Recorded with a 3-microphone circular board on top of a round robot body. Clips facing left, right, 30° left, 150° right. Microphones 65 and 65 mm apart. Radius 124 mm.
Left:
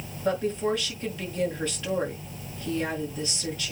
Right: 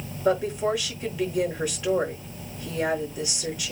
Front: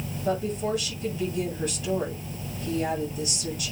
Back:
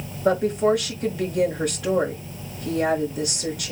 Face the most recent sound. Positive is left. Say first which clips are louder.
# right 3 dB, back 8 dB
turn(degrees=-165)